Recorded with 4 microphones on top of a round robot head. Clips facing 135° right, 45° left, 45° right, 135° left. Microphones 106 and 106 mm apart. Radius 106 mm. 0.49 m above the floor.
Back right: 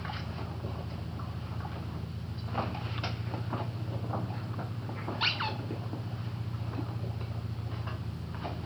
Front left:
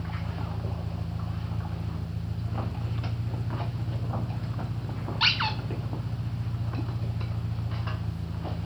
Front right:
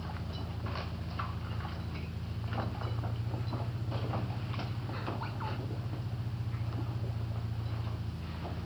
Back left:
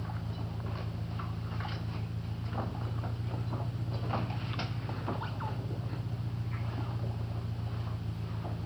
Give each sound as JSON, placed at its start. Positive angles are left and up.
{"t": 0.0, "sound": "an engine running", "azimuth_deg": 60, "distance_m": 2.0}